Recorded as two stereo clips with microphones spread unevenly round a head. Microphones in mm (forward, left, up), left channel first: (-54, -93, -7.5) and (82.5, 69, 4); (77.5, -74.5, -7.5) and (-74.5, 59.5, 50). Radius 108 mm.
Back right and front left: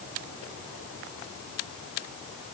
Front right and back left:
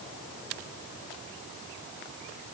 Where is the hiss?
I don't hear a hiss.